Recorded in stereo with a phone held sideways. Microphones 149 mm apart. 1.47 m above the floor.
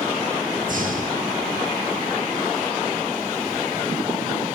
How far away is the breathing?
About 6 m.